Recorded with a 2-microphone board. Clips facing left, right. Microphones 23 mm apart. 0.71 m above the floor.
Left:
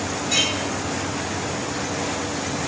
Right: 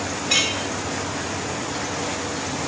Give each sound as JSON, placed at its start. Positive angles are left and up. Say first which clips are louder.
{"t": 0.3, "sound": "a clink", "louder": "right 1 dB", "side_deg": -60, "distance_m": 1.6}